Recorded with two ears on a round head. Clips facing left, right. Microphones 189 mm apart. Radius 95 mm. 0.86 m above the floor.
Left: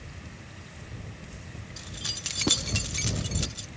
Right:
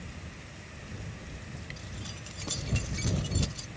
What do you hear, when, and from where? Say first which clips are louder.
1.8 s keys jangling: left 1 dB; 65° left (ahead or behind); by 3.7 s 15° left (ahead or behind)